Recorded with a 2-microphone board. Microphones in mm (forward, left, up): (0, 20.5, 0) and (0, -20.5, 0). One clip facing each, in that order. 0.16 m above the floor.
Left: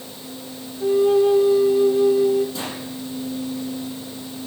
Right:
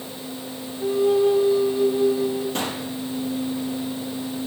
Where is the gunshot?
60° right (ahead or behind), 5 m.